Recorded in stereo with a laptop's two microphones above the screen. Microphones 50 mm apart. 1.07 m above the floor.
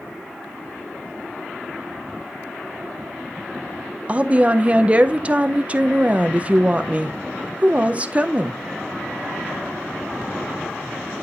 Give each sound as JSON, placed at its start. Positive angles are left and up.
{"t": 4.1, "sound": "a woman speaking", "side_deg": -25, "distance_m": 0.6}